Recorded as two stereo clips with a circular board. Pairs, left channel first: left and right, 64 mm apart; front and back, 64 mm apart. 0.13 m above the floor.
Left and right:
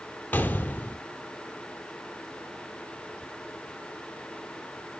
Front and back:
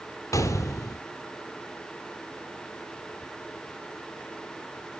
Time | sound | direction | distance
0.3 | a gunshot | 30° left | 0.6 m